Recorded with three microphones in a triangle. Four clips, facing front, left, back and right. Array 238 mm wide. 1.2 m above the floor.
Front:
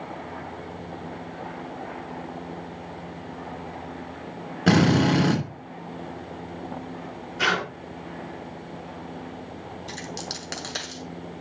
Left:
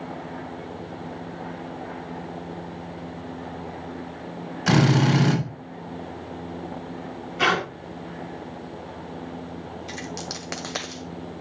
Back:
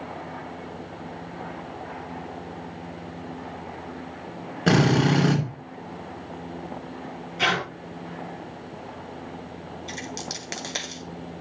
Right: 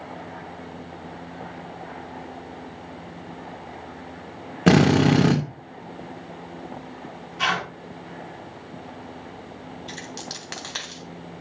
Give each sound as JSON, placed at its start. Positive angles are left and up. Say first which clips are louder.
{"t": 4.7, "sound": "a drill", "louder": "right 3 dB, front 1 dB", "azimuth_deg": -90, "distance_m": 3.0}
{"t": 7.4, "sound": "tearing paper", "louder": "left 3 dB, even", "azimuth_deg": 95, "distance_m": 3.0}
{"t": 9.9, "sound": "a dropped coin", "louder": "left 3 dB, back 1 dB", "azimuth_deg": 95, "distance_m": 1.5}